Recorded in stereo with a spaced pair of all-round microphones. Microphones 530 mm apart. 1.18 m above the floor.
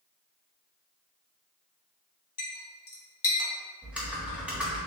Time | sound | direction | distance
2.4 | a clink | 65° left (ahead or behind) | 0.8 m
3.8 | typing on a keyboard | centre (ahead or behind) | 1.0 m